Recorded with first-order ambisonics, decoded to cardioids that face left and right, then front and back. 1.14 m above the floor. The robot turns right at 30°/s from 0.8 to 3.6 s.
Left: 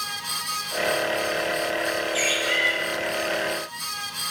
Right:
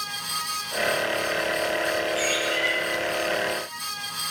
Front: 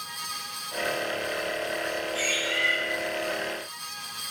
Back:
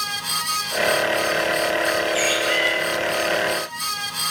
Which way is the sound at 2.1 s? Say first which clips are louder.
Left 2 dB, back 6 dB; 130° left.